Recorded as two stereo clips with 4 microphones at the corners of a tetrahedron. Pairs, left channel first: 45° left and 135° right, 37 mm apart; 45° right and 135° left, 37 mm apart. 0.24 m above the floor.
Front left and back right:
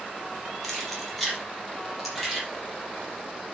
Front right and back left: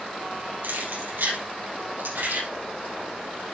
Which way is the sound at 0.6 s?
130° left.